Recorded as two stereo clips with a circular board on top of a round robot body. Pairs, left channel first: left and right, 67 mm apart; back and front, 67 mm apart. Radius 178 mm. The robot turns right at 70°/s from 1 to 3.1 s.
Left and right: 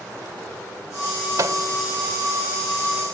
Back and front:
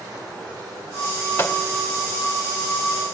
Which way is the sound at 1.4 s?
125° right.